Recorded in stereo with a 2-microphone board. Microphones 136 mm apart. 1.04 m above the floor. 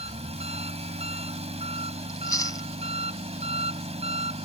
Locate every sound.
0.0 s an engine running: 50° right (ahead or behind)
2.1 s chewing: 25° left (ahead or behind)